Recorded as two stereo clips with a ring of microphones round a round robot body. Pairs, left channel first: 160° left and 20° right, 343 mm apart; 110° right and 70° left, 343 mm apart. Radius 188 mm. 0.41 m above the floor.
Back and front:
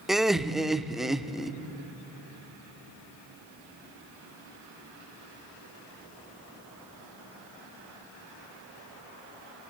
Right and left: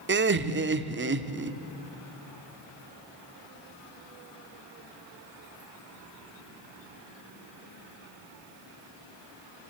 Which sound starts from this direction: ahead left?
Laughter, at 0.1 s.